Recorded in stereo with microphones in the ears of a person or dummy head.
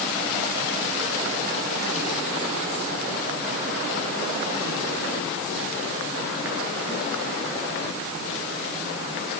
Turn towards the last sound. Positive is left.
No sound to turn to.